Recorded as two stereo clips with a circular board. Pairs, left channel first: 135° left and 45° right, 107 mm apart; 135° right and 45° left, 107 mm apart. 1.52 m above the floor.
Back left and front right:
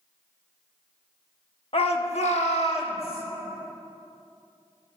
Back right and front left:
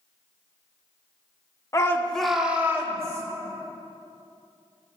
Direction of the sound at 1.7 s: 165° left.